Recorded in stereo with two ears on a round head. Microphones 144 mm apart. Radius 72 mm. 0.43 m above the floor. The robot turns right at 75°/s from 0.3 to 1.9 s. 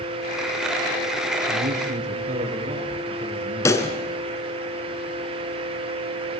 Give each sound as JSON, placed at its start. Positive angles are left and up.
{"t": 1.5, "sound": "a man speaking", "azimuth_deg": -80, "distance_m": 7.0}
{"t": 3.6, "sound": "a pop", "side_deg": 20, "distance_m": 3.5}